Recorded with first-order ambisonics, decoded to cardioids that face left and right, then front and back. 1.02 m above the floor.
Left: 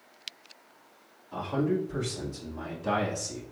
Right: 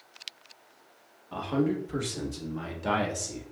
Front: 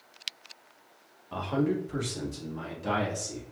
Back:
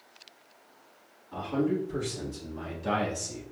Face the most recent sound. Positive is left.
turn(degrees=-90)